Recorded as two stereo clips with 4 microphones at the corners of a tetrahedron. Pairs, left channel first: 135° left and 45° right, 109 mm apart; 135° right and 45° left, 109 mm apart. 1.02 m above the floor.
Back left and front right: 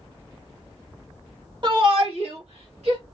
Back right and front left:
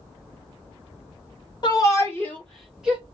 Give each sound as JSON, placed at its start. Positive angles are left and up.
{"t": 1.6, "sound": "a shout", "azimuth_deg": -85, "distance_m": 1.2}